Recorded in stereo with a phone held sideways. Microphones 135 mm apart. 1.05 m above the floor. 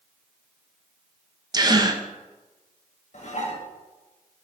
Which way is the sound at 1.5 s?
30° right (ahead or behind).